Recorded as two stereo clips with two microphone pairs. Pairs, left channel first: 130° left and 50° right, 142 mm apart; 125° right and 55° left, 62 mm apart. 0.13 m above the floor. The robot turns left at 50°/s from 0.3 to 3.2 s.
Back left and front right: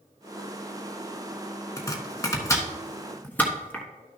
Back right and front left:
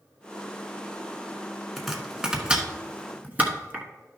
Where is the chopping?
145° left, 1.2 m; by 3.9 s 75° left, 1.2 m.